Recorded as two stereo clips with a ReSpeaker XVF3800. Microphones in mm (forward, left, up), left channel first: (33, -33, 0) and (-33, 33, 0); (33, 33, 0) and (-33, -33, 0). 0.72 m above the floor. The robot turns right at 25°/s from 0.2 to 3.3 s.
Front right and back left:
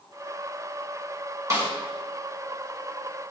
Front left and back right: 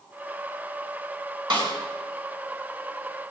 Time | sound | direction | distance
1.5 | a snare drum | 175° right | 5 m